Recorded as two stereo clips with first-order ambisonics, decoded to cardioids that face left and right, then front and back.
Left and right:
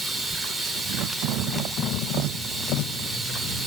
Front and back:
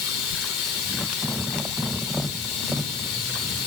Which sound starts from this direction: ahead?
Running water, at 0.0 s.